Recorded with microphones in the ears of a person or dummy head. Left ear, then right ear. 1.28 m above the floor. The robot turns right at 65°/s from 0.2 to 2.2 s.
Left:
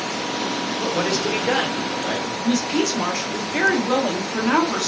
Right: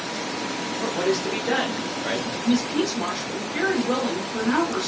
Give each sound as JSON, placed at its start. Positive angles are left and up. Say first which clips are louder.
{"t": 0.8, "sound": "a man speaking", "louder": "left 1 dB", "side_deg": 20, "distance_m": 0.5}
{"t": 2.5, "sound": "a woman speaking", "louder": "left 2 dB", "side_deg": 50, "distance_m": 0.8}